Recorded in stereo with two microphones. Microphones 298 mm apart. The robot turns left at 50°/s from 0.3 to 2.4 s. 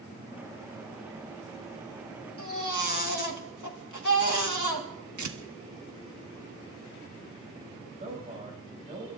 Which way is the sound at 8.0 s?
25° right (ahead or behind).